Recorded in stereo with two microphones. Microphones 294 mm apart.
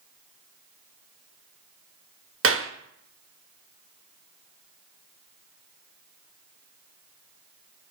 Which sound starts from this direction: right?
A clap, at 2.4 s.